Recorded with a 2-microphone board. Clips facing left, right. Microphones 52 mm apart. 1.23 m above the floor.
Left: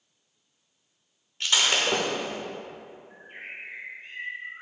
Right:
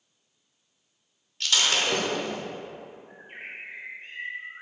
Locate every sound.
1.4 s breaking glass: 20° left (ahead or behind), 0.9 m
3.1 s a bird: 70° right (ahead or behind), 1.8 m